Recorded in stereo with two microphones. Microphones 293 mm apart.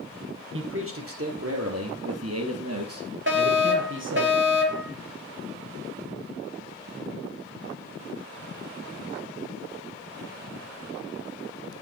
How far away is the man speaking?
About 3 m.